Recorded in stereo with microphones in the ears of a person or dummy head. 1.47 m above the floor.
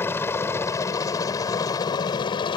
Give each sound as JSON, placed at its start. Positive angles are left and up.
{"t": 0.0, "sound": "a helicopter", "side_deg": 10}